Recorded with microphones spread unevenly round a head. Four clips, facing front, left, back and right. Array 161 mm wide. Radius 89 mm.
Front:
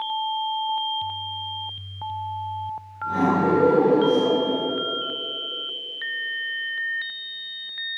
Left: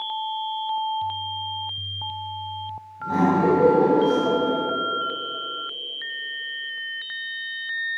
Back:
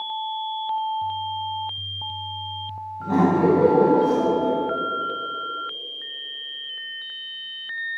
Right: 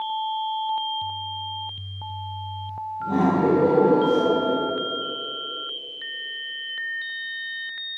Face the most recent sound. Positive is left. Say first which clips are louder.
# left 1 dB, back 2 dB
turn(degrees=-160)